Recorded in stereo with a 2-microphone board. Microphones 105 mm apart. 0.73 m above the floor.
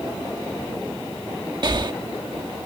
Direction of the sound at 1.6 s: 45° right (ahead or behind).